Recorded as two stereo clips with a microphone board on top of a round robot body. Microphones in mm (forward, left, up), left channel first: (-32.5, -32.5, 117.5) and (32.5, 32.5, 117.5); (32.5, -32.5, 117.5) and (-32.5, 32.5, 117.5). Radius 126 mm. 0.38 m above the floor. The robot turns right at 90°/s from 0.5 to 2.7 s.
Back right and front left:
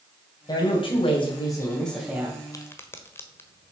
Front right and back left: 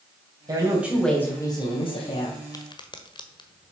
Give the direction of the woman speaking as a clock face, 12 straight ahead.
6 o'clock.